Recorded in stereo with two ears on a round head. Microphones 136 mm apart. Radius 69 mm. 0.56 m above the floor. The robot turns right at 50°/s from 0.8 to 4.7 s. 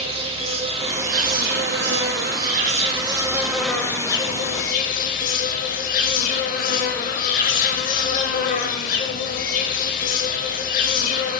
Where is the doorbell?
I don't hear a doorbell.